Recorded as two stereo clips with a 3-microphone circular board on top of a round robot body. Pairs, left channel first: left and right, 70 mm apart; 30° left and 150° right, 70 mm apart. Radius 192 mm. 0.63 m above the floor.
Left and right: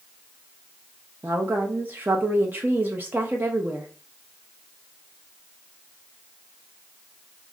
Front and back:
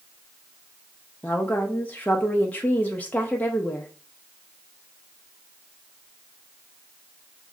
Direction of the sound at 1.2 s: 35° right.